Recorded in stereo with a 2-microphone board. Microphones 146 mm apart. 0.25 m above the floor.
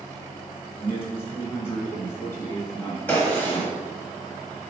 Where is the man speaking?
15° left (ahead or behind), 1.5 m.